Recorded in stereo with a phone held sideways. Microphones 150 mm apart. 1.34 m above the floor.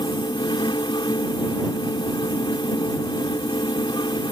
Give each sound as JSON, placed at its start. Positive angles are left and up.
{"t": 0.0, "sound": "a fan", "side_deg": 30}